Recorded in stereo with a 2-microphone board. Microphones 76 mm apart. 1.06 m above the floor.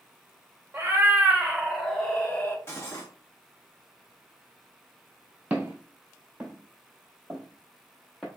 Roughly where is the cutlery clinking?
Left.